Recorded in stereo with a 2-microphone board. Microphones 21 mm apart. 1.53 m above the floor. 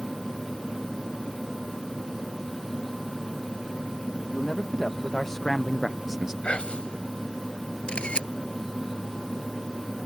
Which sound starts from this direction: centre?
A man speaking, at 4.3 s.